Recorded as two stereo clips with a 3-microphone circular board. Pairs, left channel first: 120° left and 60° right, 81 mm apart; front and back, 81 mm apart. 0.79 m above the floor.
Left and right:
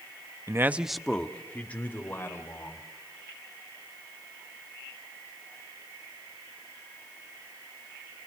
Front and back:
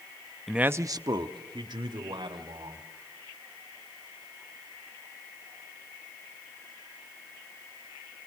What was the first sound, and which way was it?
A man speaking, 90° right.